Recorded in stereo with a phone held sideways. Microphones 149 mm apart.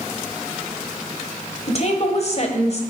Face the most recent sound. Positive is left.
turn(degrees=45)  # may be behind; listen again after turning